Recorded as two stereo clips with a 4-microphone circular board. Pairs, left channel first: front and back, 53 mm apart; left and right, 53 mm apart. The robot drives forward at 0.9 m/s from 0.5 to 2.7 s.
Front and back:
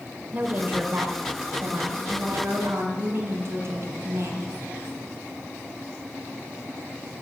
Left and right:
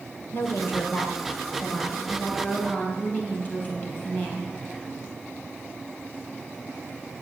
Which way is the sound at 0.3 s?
125° left.